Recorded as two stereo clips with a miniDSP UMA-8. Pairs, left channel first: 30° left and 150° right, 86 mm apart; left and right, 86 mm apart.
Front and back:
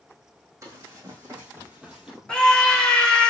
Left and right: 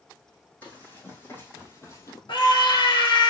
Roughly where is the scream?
Left.